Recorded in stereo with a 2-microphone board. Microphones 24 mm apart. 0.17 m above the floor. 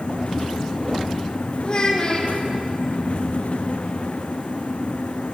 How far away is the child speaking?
About 5.5 m.